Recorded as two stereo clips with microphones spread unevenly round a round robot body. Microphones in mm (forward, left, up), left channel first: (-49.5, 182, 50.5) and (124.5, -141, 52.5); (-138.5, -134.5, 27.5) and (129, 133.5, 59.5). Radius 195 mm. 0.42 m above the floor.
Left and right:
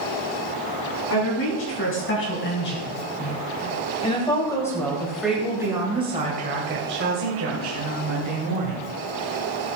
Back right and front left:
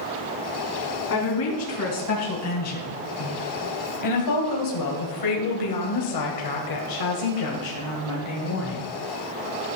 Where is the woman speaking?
170° left, 5 m; by 8.8 s 90° right, 3 m.